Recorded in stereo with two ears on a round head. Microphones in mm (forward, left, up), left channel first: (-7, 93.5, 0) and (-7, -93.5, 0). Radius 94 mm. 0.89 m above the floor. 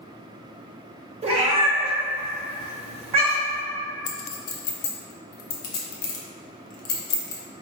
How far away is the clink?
About 0.7 m.